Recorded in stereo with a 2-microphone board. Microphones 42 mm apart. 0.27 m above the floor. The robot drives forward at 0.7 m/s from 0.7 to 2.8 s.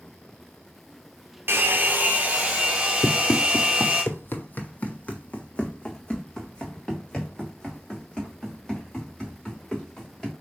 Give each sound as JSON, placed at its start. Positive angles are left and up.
{"t": 1.5, "sound": "a hair dryer", "side_deg": -55, "distance_m": 0.8}
{"t": 3.0, "sound": "running footsteps", "side_deg": 50, "distance_m": 0.6}